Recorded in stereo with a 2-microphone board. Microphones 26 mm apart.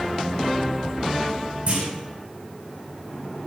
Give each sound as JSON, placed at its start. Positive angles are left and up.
{"t": 1.7, "sound": "a clunk", "side_deg": -65, "distance_m": 6.0}